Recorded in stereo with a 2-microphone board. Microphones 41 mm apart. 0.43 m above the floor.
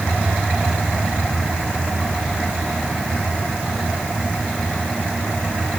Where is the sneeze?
No sneeze in this recording.